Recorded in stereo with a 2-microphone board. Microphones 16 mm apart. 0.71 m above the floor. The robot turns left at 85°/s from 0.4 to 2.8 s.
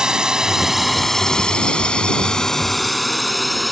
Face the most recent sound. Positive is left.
turn(degrees=0)  # may be behind; listen again after turning